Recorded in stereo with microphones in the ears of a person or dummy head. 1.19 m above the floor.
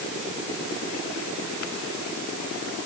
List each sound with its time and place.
Only background noise.